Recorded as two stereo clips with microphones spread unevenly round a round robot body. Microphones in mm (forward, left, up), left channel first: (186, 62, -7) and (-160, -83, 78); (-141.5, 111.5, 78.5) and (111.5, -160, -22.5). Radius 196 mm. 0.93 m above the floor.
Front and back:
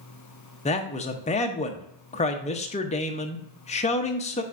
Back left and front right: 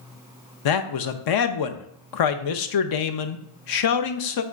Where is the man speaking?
90° left, 0.6 m.